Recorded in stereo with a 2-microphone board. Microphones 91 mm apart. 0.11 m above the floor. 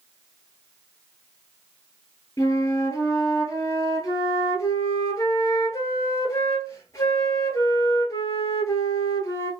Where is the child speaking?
I don't hear a child speaking.